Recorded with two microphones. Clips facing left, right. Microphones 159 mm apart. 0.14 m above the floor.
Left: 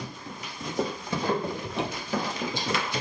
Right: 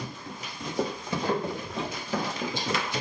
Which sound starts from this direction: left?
A cupboard door, at 1.6 s.